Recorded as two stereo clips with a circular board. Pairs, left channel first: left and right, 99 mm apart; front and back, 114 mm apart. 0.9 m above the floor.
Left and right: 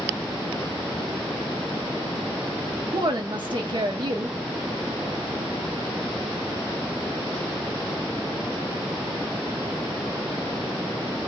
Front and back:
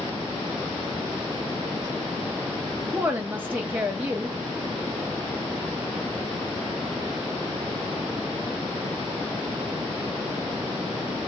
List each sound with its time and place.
2.9 s a woman speaking: 110° right, 0.7 m